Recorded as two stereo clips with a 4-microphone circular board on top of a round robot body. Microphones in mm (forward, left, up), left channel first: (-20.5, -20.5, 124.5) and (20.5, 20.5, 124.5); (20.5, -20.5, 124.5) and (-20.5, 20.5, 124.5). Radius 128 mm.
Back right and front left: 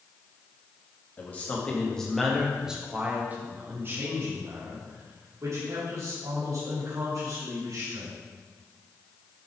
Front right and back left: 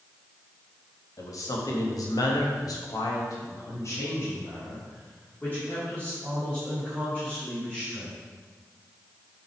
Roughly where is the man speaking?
Right.